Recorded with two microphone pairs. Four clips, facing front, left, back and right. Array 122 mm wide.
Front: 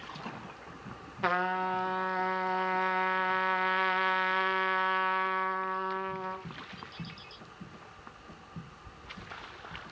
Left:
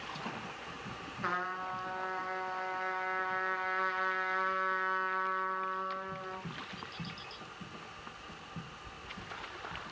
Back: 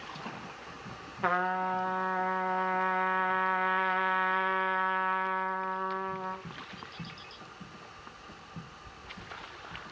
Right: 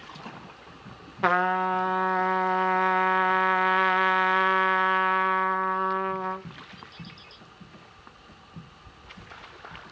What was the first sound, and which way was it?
A trumpet, 85° right.